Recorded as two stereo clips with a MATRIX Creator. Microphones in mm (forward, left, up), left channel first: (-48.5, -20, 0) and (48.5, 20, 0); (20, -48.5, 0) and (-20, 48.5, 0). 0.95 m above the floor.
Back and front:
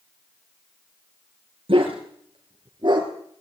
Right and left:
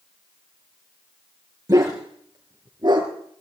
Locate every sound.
1.7 s a dog barking: 55° left, 4.5 m; by 3.1 s 65° left, 4.5 m